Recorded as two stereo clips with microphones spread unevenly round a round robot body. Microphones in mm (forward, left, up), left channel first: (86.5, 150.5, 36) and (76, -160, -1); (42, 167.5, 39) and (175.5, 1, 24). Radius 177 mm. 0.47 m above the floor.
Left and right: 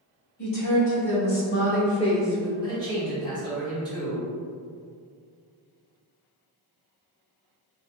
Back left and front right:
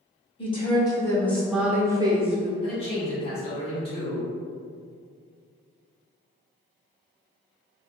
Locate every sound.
0.4 s a woman speaking: 65° left, 1.7 m; by 2.5 s 10° right, 1.1 m
2.6 s a man speaking: 165° left, 1.3 m